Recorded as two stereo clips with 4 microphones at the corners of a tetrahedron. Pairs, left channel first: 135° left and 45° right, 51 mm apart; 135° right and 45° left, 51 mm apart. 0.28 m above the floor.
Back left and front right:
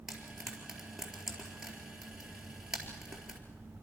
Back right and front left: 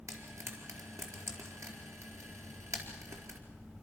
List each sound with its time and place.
0.1 s frying: 35° left, 4 m